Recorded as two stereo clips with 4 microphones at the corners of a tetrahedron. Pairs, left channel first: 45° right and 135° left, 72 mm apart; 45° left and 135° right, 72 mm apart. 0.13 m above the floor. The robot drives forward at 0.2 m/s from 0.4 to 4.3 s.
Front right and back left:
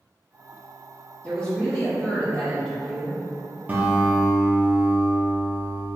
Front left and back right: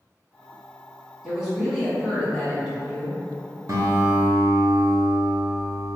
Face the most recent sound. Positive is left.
turn(degrees=-165)